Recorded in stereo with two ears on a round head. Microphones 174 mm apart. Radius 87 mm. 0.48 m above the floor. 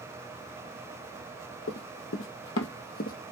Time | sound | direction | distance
1.7 | running footsteps | 55° left (ahead or behind) | 1.3 m